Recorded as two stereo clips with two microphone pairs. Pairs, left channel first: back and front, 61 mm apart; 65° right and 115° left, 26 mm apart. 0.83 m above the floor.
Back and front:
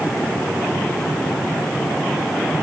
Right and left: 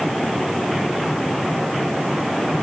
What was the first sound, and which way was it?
Only background noise.